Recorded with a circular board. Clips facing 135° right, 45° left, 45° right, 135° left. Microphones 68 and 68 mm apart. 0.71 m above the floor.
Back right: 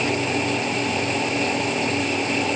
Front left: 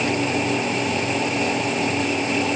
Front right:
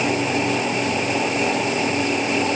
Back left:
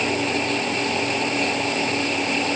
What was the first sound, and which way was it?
Only background noise.